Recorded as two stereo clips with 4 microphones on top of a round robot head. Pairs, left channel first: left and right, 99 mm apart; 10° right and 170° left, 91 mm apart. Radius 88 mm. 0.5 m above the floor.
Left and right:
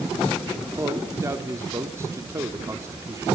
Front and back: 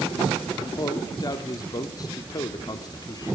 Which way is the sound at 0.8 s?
40° right.